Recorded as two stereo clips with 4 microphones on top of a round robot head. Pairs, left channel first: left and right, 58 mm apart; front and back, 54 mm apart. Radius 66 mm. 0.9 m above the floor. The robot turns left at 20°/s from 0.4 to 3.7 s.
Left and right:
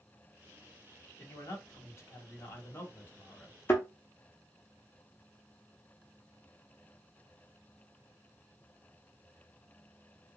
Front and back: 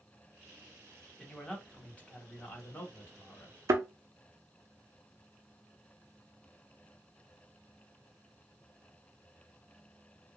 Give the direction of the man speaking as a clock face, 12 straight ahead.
9 o'clock.